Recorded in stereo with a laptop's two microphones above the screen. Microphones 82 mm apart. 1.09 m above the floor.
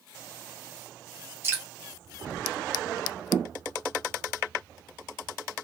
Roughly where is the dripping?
Right.